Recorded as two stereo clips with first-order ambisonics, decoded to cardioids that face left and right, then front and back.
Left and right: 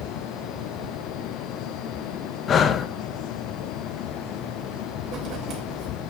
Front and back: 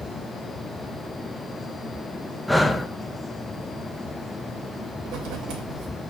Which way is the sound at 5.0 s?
140° right.